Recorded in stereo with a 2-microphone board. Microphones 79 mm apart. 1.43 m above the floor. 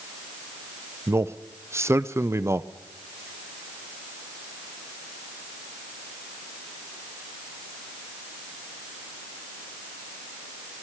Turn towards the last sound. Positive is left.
turn(degrees=-35)  # may be behind; listen again after turning